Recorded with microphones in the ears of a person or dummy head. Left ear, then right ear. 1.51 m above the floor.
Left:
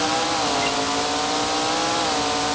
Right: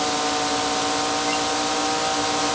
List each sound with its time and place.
Only background noise.